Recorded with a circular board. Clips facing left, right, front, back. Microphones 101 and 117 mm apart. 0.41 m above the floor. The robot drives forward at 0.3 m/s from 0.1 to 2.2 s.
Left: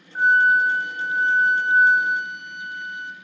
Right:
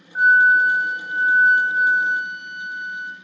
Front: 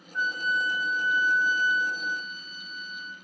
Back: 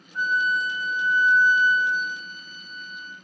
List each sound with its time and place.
0.1 s a flute: 160° right, 0.6 m; by 3.1 s 170° right, 1.1 m